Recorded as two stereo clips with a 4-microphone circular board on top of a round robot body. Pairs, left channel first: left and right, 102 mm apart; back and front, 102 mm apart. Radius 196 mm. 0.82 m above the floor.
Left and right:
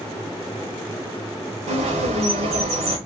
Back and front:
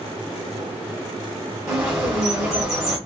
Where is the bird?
85° right, 0.9 m.